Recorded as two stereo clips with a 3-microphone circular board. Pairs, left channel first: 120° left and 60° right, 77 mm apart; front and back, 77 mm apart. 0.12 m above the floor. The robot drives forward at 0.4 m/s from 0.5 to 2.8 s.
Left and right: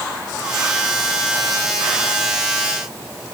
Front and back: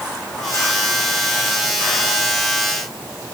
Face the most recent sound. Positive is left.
No sound to turn to.